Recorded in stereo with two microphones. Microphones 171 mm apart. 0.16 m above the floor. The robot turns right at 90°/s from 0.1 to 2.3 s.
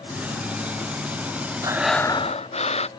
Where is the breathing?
25° right; by 2.9 s 35° left.